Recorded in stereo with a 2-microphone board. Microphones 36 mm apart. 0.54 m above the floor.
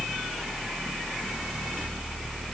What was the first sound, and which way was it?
Only background noise.